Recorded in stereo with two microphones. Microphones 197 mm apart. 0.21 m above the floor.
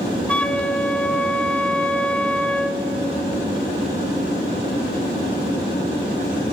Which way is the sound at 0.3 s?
5° left (ahead or behind).